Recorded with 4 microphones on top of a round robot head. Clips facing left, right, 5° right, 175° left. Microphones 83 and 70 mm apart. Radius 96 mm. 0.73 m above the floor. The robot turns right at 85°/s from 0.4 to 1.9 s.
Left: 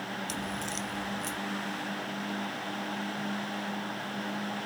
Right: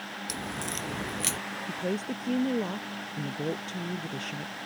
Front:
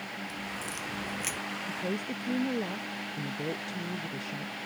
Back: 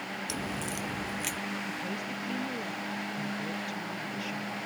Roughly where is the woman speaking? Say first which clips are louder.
Right 4 dB, front 2 dB; right.